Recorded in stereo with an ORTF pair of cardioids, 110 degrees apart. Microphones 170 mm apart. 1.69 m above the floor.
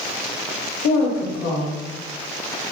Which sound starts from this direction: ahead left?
A woman speaking, at 0.8 s.